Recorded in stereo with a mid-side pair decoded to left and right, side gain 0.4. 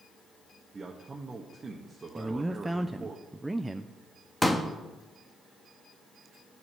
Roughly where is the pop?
Ahead.